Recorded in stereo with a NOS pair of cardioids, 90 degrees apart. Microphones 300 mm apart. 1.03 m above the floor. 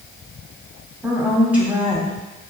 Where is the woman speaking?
5° right, 3 m.